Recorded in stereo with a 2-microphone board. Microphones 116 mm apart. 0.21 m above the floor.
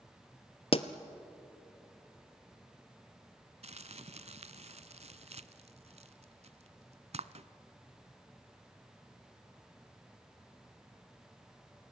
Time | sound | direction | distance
0.7 | a pop | 55° left (ahead or behind) | 0.9 m
3.6 | crumpling | 65° right (ahead or behind) | 0.6 m